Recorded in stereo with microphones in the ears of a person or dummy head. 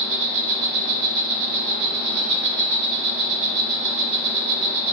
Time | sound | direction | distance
0.0 | an insect | 55° right (ahead or behind) | 1.0 m